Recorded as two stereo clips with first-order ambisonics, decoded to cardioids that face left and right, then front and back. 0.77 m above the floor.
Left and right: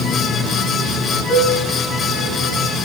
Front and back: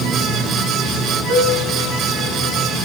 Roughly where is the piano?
Behind left.